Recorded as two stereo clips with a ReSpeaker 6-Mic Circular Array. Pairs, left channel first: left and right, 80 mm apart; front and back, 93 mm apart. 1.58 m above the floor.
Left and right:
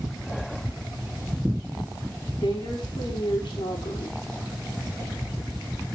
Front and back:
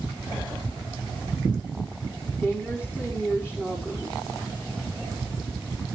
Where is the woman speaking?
105° left, 4.5 m.